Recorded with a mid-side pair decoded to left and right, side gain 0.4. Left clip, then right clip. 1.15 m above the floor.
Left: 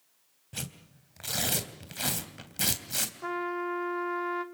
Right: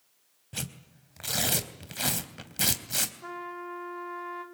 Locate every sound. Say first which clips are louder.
0.5 s tearing paper: right 2 dB; 15° right, 3.5 m
3.2 s a trumpet: left 6 dB; 50° left, 2.5 m